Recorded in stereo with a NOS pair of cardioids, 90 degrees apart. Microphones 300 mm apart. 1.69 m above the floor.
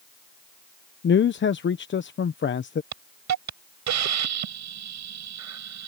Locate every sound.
1.0 s a man speaking: 40° left
2.9 s a hiss: 65° right